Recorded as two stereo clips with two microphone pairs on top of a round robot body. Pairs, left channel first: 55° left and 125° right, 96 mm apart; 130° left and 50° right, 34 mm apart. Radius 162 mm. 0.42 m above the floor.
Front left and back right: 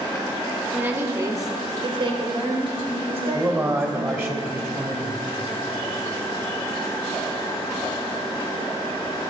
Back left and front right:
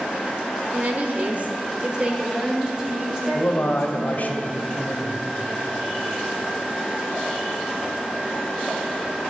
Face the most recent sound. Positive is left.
turn(degrees=175)